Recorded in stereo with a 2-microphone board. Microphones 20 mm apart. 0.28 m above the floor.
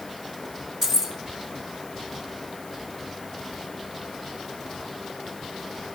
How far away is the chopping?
I don't hear chopping.